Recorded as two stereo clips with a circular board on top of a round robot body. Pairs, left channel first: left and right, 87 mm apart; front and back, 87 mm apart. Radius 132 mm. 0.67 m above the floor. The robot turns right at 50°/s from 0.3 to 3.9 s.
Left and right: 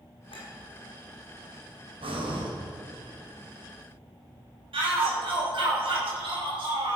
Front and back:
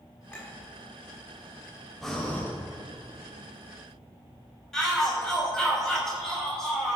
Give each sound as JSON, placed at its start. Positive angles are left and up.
{"t": 0.3, "sound": "a clink", "azimuth_deg": 80, "distance_m": 5.0}
{"t": 2.0, "sound": "breathing", "azimuth_deg": -90, "distance_m": 2.5}
{"t": 4.7, "sound": "a shout", "azimuth_deg": -85, "distance_m": 5.0}